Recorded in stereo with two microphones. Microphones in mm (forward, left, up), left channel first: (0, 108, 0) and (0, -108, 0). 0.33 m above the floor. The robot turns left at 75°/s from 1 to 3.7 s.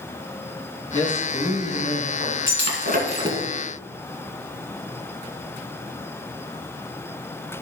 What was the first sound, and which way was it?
A man speaking, 15° left.